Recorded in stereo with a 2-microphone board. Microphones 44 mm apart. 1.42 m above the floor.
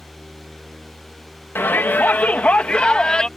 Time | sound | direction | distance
1.6 | a shout | 55° left (ahead or behind) | ?